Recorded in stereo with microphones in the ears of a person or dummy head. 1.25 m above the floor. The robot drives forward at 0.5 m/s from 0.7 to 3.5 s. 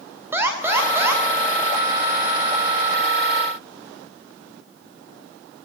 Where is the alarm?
15° right (ahead or behind), 3 m.